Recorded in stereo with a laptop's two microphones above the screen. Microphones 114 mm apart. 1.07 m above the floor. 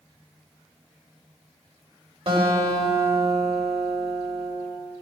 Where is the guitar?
60° right (ahead or behind), 4 m.